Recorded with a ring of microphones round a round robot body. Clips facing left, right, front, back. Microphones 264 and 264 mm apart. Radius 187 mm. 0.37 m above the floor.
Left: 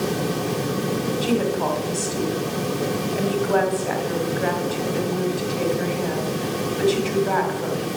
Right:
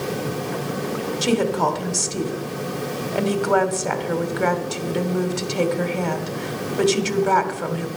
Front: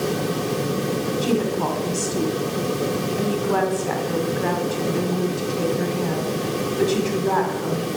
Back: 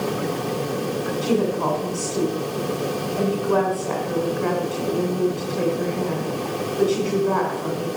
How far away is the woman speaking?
About 1.9 m.